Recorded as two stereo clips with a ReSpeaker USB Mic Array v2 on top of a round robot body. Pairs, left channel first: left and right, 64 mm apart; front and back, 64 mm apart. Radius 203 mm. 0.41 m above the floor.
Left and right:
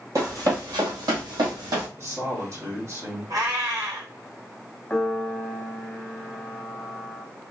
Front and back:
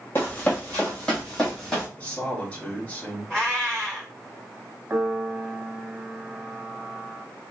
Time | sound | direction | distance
0.1 | running footsteps | 55° right | 1.0 m
2.0 | a man speaking | 65° right | 2 m
3.3 | a cat meowing | 85° right | 2.5 m
4.9 | a piano | 145° left | 0.9 m